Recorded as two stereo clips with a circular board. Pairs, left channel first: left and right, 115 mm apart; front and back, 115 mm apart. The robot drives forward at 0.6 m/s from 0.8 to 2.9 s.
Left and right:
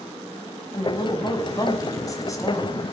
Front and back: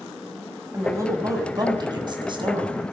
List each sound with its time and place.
0.7 s a woman speaking: 125° left, 2.0 m; by 2.8 s 150° left, 2.5 m